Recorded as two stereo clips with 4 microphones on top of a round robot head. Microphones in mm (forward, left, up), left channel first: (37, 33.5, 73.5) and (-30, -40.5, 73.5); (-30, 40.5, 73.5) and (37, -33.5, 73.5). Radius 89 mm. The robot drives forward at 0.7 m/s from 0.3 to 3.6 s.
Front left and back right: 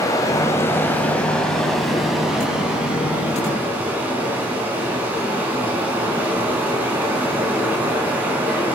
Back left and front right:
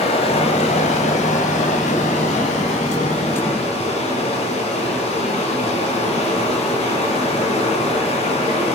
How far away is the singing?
No singing in this recording.